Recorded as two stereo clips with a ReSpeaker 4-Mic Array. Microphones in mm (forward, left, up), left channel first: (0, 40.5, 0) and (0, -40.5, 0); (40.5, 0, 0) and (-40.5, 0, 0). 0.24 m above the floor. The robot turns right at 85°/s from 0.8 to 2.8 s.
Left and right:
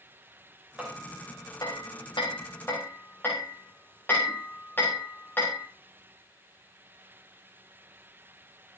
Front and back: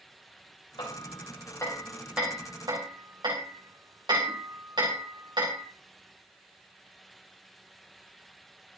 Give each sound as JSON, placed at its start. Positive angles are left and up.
{"t": 0.8, "sound": "hammering", "azimuth_deg": -15, "distance_m": 6.0}